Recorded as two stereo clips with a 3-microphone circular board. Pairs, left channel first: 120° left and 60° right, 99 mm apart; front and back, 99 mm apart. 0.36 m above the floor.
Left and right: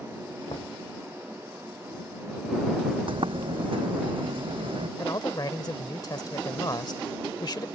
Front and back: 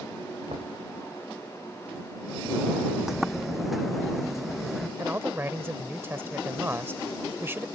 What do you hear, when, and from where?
0.5 s knocking: 160° left
3.1 s a sliding door: 90° right
5.0 s a man speaking: 125° left